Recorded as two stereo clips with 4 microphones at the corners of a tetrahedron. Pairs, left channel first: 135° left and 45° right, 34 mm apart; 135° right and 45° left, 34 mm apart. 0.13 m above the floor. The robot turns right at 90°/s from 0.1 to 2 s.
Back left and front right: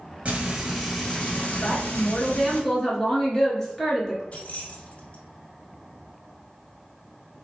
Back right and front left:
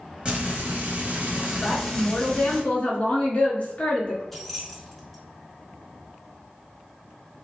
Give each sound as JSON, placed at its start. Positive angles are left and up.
{"t": 0.2, "sound": "frying", "azimuth_deg": -10, "distance_m": 1.4}
{"t": 1.6, "sound": "a woman speaking", "azimuth_deg": 175, "distance_m": 1.9}
{"t": 4.3, "sound": "keys jangling", "azimuth_deg": 140, "distance_m": 1.1}